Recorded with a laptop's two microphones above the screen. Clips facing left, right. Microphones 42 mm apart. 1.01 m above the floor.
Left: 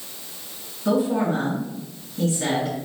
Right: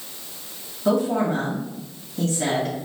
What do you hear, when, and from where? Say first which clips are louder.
0.8 s a woman speaking: even; 70° right (ahead or behind), 2 m